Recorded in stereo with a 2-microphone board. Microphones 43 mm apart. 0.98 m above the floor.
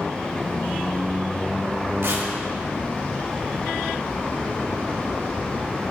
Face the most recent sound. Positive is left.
turn(degrees=-65)  # may be behind; listen again after turning